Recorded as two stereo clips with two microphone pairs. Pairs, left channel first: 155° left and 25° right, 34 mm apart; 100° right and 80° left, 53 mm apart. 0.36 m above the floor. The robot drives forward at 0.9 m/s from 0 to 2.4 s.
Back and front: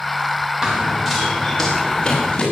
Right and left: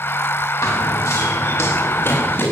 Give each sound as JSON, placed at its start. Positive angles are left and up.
{"t": 0.6, "sound": "running footsteps", "azimuth_deg": -95, "distance_m": 4.5}